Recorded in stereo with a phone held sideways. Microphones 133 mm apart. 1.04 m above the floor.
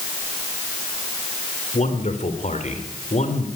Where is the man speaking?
60° left (ahead or behind), 3.5 m.